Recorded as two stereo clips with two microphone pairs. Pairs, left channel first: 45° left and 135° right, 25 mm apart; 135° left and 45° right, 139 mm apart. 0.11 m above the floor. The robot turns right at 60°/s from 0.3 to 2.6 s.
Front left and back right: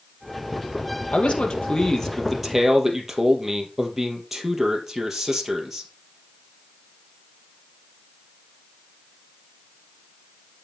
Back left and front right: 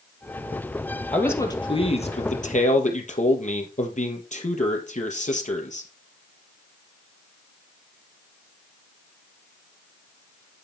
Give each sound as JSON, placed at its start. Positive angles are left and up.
{"t": 1.1, "sound": "a man speaking", "azimuth_deg": 55, "distance_m": 2.5}